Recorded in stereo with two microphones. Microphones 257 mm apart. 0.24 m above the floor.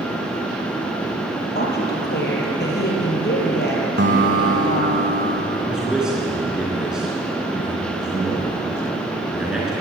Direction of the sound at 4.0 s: 45° right (ahead or behind).